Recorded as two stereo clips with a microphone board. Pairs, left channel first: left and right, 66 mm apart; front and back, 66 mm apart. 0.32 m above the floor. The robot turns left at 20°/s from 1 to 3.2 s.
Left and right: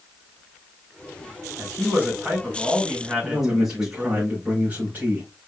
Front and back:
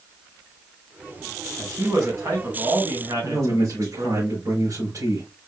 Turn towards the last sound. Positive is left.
turn(degrees=-150)